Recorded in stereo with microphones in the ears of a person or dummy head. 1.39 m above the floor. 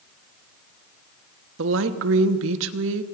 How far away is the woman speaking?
About 1.2 m.